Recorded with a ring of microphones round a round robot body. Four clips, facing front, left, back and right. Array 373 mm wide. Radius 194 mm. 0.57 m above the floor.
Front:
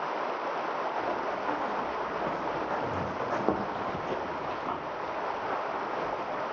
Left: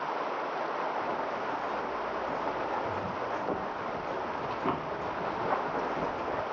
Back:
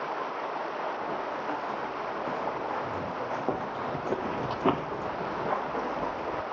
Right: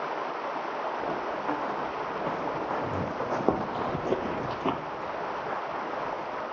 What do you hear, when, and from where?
1.0 s running footsteps: 65° right, 5 m; by 6.4 s 135° left, 3 m